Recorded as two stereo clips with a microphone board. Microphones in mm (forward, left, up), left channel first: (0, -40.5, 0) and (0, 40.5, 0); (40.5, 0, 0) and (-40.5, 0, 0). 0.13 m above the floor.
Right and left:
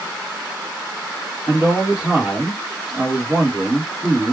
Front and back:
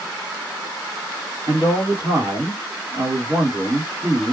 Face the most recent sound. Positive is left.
turn(degrees=165)